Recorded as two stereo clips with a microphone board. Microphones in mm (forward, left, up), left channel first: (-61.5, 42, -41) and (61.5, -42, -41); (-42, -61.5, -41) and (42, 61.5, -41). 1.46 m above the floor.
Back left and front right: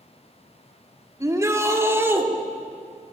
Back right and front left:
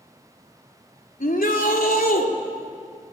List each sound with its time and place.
1.2 s a shout: 105° right, 3.5 m; by 2.3 s 110° right, 4 m